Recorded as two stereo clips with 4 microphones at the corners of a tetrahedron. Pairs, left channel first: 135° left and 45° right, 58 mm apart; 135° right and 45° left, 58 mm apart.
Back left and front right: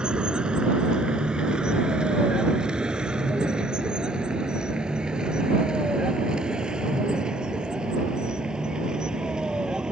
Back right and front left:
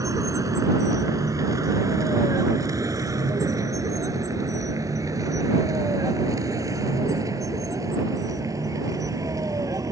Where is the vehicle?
30° left.